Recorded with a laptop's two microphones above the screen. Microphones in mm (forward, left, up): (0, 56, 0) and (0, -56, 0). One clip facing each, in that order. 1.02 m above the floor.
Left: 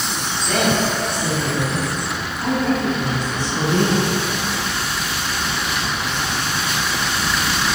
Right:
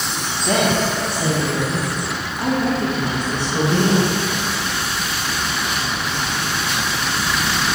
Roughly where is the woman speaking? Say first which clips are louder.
Right 2 dB; right.